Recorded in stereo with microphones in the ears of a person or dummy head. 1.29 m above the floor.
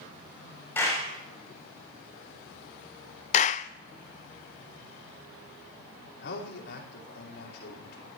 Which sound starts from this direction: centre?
A clap, at 0.8 s.